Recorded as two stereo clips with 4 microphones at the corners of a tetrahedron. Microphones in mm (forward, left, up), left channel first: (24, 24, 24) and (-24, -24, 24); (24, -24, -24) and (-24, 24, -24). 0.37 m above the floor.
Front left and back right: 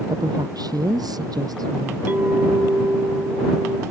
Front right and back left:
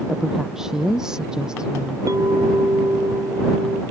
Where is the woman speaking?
140° right; by 2.0 s 145° right.